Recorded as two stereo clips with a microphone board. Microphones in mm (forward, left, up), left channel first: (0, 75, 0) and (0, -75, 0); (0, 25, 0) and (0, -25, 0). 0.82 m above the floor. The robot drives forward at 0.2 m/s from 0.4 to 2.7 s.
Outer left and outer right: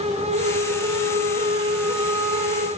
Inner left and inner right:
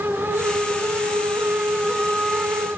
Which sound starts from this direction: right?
A flute, at 0.2 s.